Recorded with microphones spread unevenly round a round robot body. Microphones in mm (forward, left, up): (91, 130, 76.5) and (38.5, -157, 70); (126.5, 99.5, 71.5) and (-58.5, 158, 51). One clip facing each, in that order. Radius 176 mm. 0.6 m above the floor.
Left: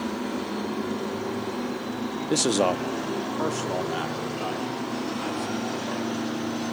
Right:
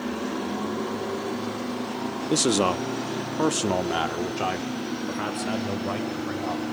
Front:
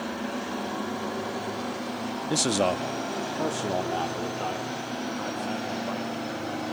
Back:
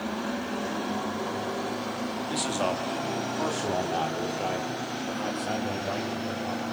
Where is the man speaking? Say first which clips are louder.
Right 1 dB, front 6 dB; 20° right, 1.0 m; by 6.6 s 130° right, 3.5 m.